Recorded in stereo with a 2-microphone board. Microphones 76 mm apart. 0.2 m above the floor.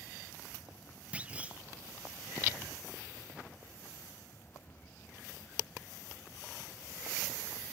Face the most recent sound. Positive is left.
turn(degrees=-20)  # may be behind; listen again after turning